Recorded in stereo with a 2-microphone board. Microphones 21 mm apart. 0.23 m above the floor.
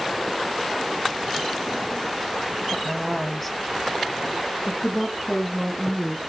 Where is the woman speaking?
Centre (ahead or behind), 1.1 m; by 6.2 s 15° left (ahead or behind), 1.7 m.